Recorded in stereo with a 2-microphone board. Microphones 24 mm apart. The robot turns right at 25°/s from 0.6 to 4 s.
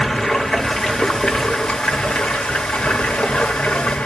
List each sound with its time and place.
0.0 s running water: 25° left, 0.9 m; by 4.0 s 110° left, 0.9 m